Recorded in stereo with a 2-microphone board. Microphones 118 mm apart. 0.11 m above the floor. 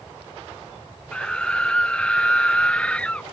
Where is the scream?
5° left (ahead or behind); by 3.2 s 10° left (ahead or behind).